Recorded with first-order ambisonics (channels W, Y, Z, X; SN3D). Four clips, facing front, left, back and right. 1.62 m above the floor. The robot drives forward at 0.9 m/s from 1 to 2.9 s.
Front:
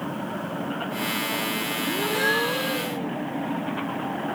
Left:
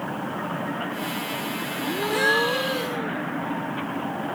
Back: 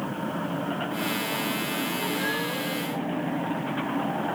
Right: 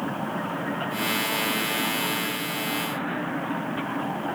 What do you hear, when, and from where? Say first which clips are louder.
1.8 s a gasp: left 4 dB, front 4 dB; 60° left; by 3.1 s 70° left